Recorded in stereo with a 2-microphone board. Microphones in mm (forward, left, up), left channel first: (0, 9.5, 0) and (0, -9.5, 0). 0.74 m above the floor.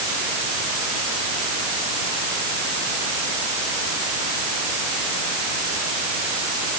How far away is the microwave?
No microwave in this recording.